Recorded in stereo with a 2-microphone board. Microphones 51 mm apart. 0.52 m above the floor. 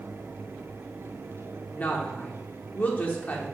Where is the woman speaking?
30° left (ahead or behind), 0.8 m.